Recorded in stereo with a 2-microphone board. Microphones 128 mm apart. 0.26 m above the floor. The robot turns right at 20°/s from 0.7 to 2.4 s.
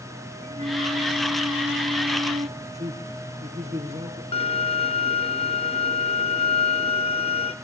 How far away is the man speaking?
About 4 m.